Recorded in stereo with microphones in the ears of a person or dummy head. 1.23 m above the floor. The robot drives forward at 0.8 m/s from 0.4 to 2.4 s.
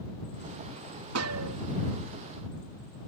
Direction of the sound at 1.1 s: 80° right.